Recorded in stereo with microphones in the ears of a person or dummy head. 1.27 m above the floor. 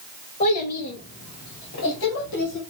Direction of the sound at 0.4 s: 40° left (ahead or behind).